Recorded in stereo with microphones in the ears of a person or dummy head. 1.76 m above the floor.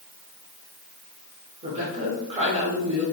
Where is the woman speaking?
35° right (ahead or behind), 1.0 m.